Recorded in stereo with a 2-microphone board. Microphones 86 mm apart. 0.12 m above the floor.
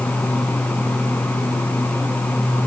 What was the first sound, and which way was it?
Only background noise.